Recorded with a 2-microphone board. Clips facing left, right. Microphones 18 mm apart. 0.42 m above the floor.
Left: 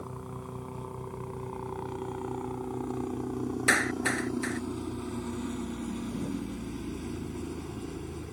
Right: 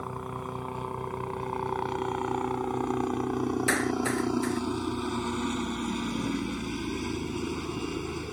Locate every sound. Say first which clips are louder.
0.0 s a helicopter: right 5 dB; 35° right (ahead or behind); by 8.3 s 55° right (ahead or behind)
3.7 s a clap: left 4 dB; 15° left (ahead or behind)